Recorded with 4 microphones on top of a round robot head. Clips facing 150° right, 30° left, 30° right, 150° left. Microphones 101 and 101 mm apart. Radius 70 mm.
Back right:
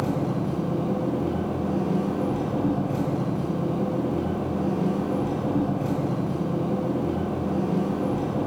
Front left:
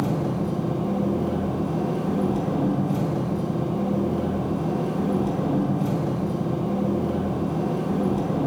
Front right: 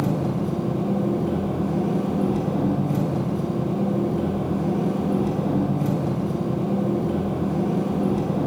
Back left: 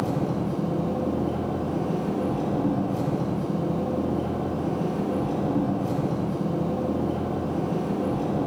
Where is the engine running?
35° right, 4 m.